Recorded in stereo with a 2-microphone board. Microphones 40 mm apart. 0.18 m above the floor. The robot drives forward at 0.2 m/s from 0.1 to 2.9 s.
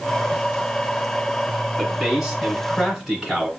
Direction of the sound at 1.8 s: 10° right (ahead or behind).